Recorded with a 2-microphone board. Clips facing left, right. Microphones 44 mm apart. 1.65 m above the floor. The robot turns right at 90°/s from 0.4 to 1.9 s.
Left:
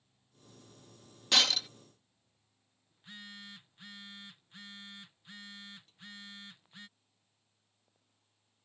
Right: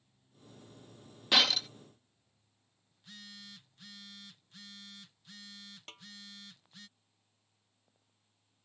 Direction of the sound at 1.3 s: 10° right (ahead or behind).